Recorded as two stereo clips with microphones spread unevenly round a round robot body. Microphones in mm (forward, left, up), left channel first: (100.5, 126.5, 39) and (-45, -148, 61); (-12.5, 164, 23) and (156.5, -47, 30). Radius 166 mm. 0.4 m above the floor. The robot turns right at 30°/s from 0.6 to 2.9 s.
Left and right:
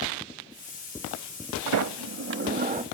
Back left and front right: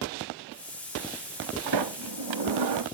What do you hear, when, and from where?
1.7 s a sliding door: 80° right, 0.7 m; by 2.8 s 45° right, 0.7 m